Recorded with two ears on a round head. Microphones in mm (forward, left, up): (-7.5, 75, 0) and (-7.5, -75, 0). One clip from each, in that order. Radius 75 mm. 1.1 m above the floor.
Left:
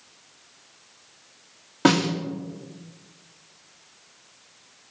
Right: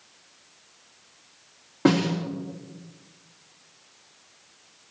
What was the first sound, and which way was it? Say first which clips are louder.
A snare drum: left 2 dB; 70° left (ahead or behind).